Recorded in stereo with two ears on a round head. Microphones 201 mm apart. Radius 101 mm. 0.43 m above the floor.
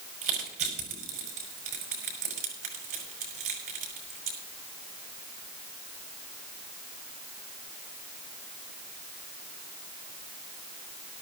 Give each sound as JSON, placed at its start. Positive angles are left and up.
{"t": 0.2, "sound": "crushing", "side_deg": -65, "distance_m": 5.5}